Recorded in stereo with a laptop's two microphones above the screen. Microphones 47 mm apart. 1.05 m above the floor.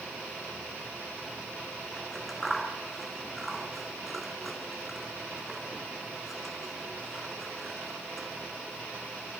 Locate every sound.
2.0 s scissors: 5° left (ahead or behind), 9 m